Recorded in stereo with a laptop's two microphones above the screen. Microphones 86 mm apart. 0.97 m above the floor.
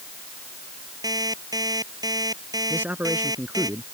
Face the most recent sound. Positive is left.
turn(degrees=-20)  # may be behind; listen again after turning